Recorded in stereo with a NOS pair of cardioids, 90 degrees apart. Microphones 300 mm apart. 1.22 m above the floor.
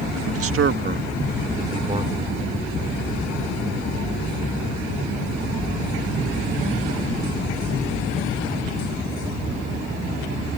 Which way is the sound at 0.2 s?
55° right.